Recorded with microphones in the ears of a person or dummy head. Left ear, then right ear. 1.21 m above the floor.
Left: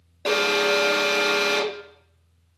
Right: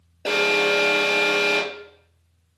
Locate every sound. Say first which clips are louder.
0.2 s an alarm: right 1 dB; centre (ahead or behind), 2.5 m